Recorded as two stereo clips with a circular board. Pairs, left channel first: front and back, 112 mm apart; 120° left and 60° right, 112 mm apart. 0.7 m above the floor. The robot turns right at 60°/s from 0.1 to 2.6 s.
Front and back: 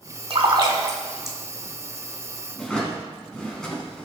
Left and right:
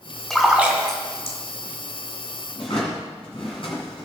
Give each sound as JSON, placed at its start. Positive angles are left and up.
{"t": 0.3, "sound": "a splash", "azimuth_deg": -155, "distance_m": 2.0}
{"t": 2.5, "sound": "a drawer", "azimuth_deg": 80, "distance_m": 3.5}